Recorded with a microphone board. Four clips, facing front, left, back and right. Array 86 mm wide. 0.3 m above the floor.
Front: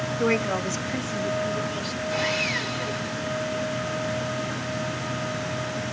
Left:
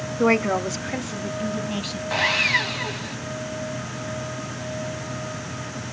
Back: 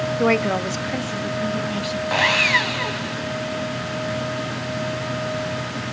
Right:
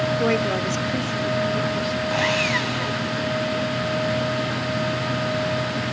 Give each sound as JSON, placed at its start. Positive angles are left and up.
{"t": 0.2, "sound": "a woman speaking", "azimuth_deg": 155, "distance_m": 1.0}
{"t": 2.1, "sound": "sawing", "azimuth_deg": 170, "distance_m": 0.9}